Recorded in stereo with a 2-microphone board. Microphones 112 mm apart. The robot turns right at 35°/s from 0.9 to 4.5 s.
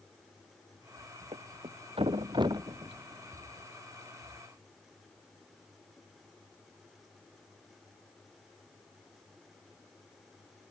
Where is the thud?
85° right; by 3.5 s 10° right (ahead or behind).